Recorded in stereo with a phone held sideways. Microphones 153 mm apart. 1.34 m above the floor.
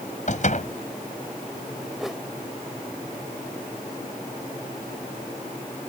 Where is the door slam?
55° left (ahead or behind).